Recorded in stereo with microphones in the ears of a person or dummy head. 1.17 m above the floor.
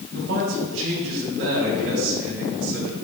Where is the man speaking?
80° right, 4 m.